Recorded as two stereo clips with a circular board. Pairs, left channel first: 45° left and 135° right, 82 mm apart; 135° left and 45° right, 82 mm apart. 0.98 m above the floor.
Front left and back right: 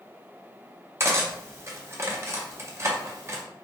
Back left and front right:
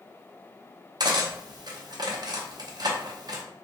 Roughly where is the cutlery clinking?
Right.